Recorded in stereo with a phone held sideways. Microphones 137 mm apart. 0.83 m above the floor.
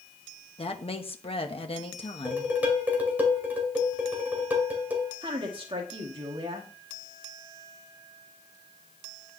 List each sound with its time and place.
0.6 s a woman speaking: 40° left (ahead or behind), 1.1 m
2.2 s dishes clattering: 10° right (ahead or behind), 2.5 m
5.2 s a woman speaking: 40° right (ahead or behind), 1.8 m